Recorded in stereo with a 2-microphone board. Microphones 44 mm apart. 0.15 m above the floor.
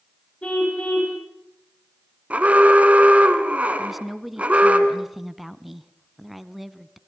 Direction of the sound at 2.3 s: 35° right (ahead or behind).